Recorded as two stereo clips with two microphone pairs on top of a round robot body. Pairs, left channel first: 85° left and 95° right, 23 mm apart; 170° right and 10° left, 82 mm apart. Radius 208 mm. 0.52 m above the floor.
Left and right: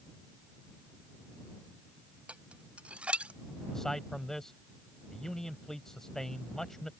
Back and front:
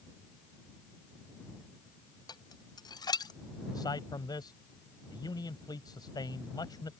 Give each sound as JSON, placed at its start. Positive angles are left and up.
{"t": 2.3, "sound": "dishes clattering", "azimuth_deg": -130}
{"t": 3.7, "sound": "a man speaking", "azimuth_deg": 155}